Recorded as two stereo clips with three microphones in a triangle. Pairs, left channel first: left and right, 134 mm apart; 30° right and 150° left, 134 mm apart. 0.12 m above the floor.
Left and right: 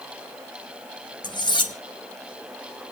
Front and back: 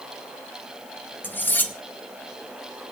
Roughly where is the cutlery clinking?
Ahead left.